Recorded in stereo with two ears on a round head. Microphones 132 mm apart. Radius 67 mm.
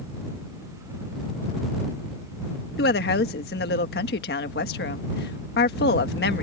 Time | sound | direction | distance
2.8 | a woman speaking | 75° left (ahead or behind) | ?